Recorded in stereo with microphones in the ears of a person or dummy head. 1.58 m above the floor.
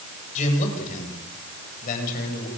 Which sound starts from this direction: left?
A man speaking, at 0.3 s.